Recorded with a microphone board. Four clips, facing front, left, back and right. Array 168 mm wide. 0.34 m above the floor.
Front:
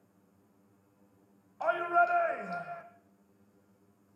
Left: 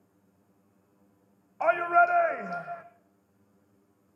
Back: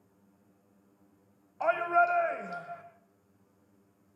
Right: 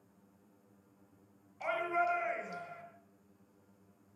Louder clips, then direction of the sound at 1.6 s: Left 11 dB, back 2 dB; 105° left.